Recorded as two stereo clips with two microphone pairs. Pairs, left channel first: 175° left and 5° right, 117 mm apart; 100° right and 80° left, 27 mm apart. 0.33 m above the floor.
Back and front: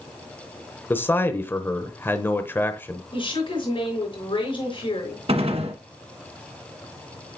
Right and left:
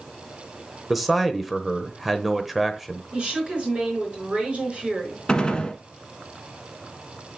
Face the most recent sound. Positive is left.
turn(degrees=-40)